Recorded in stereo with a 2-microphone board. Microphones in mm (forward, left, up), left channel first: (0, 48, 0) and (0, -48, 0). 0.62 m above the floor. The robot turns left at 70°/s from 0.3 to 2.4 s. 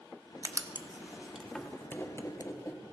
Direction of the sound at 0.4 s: 35° right (ahead or behind).